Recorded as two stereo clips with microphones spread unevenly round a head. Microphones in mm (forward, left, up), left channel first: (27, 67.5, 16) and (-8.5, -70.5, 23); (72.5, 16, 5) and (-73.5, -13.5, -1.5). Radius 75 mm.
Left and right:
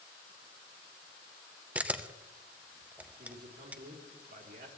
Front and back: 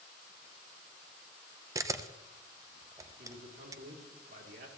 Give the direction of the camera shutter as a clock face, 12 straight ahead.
6 o'clock.